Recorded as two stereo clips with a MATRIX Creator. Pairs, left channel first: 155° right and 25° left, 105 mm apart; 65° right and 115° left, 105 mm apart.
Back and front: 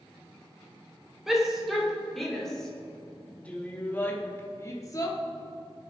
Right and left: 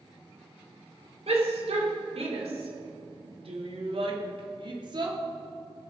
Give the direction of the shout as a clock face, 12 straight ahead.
8 o'clock.